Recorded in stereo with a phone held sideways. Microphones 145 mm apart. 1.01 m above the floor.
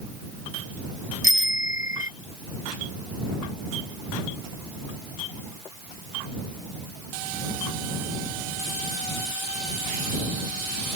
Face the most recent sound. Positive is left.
turn(degrees=50)  # may be behind; listen again after turning